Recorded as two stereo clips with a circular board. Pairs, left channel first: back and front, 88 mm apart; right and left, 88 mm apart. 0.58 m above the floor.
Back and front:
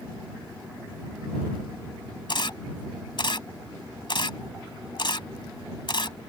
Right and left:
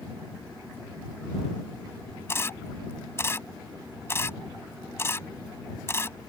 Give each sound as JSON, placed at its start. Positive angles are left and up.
{"t": 2.3, "sound": "a camera shutter", "azimuth_deg": -150}